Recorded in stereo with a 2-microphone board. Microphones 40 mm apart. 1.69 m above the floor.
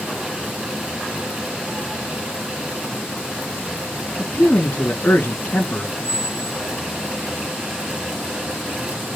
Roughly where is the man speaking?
Left.